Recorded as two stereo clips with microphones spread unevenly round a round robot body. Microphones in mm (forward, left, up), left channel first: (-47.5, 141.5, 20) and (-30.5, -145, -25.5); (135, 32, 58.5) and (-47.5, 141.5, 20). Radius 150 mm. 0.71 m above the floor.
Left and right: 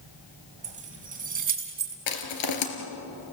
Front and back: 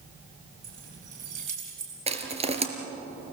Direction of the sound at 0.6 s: 155° right.